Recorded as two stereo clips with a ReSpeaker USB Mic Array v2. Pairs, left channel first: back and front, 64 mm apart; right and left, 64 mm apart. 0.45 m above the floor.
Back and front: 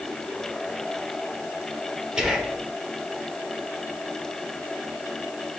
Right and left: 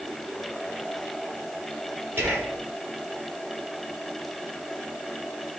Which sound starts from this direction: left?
Whispering, at 2.2 s.